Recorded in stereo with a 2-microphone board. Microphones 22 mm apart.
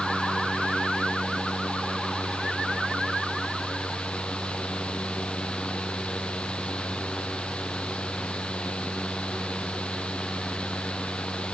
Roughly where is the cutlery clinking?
No cutlery clinking in this recording.